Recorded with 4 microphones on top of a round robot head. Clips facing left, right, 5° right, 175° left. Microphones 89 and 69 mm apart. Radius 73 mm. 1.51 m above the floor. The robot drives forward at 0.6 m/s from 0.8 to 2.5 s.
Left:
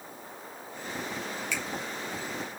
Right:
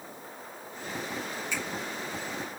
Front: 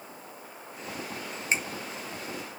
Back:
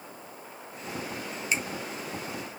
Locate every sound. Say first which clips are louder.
1.5 s a finger snap: right 1 dB, front 1 dB; 50° left, 1.9 m